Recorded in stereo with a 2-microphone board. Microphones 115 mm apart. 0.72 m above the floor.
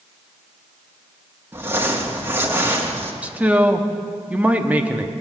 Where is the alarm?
I don't hear an alarm.